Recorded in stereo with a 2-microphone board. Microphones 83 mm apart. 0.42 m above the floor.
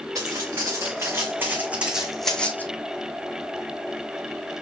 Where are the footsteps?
45° right (ahead or behind), 3.5 m; by 2.6 s 20° left (ahead or behind), 1.5 m.